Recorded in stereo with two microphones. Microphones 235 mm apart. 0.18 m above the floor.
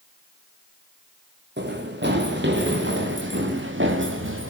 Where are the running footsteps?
50° right (ahead or behind), 6 m; by 4.5 s 60° right (ahead or behind), 4.5 m.